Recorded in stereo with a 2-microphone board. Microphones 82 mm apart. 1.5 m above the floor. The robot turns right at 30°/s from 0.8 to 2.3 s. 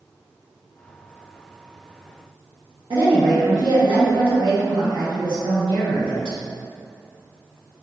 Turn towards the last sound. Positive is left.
turn(degrees=-75)  # may be behind; listen again after turning